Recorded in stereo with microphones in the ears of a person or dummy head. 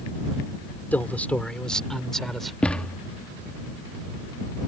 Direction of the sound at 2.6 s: 5° left (ahead or behind).